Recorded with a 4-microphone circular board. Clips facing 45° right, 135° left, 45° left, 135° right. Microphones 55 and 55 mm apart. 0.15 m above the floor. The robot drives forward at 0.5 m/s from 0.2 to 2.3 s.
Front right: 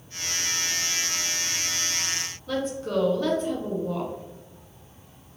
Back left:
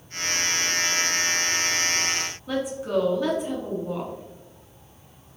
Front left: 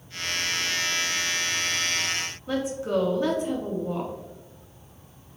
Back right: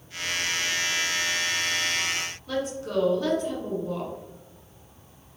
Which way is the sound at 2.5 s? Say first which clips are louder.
Back left 1 dB, front left 4 dB; 75° left.